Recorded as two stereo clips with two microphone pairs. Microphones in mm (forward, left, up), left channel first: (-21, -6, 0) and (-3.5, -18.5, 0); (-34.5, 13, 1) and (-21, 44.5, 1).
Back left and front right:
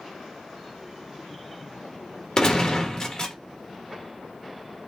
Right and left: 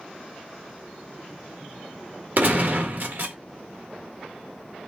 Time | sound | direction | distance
2.4 | a gunshot | 90° left | 1.4 m